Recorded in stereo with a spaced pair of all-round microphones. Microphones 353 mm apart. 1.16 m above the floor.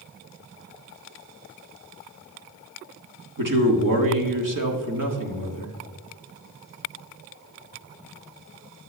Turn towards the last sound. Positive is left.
turn(degrees=-65)  # may be behind; listen again after turning